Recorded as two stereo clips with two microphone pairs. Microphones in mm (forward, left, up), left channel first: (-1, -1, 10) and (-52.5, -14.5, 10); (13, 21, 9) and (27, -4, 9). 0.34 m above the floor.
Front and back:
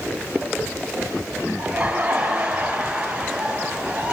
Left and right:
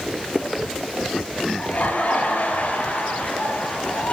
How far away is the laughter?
About 8 m.